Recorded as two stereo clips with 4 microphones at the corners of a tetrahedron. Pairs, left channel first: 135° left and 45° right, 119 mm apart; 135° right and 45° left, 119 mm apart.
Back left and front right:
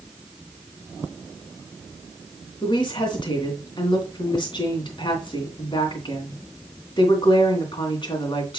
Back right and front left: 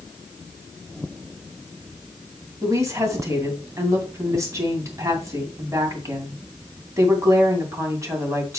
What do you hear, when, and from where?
2.6 s a woman speaking: 105° left, 2.5 m